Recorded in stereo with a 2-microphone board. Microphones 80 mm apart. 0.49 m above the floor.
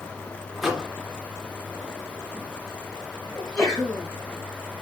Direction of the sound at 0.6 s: 5° right (ahead or behind).